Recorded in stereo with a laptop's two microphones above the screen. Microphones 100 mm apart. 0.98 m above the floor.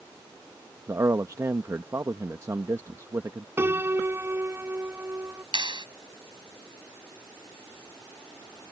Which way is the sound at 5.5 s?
50° right (ahead or behind).